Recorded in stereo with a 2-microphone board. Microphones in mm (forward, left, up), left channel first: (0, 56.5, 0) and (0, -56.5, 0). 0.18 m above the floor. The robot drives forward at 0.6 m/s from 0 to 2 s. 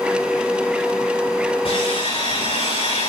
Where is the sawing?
65° left (ahead or behind), 8.5 m.